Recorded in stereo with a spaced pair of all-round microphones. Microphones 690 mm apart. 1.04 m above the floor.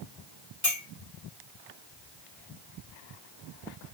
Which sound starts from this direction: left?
A clink, at 0.6 s.